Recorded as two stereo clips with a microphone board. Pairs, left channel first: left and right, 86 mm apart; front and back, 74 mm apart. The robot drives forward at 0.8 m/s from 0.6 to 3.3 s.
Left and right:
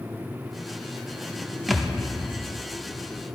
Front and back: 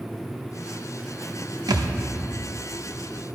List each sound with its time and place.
1.7 s a thud: straight behind, 0.7 m